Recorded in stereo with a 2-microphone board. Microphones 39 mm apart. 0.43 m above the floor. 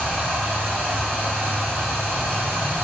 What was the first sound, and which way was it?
Running water, 65° right (ahead or behind).